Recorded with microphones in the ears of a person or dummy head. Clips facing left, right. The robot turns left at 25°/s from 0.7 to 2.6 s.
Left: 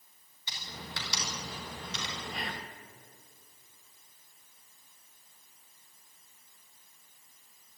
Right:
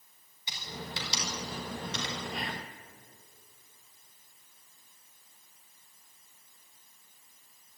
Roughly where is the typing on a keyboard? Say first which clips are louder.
Right 4 dB; centre.